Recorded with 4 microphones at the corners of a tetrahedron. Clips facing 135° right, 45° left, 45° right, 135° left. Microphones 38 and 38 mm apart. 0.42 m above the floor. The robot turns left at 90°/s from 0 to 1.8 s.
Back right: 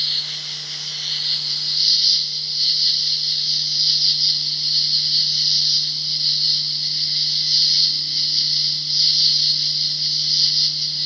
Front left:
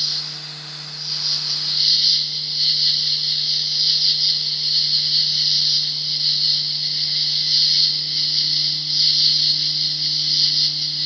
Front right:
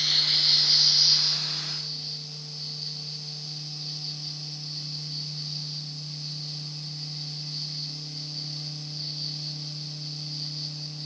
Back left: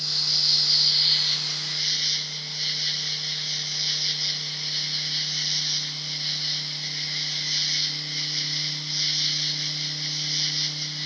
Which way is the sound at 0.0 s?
75° right.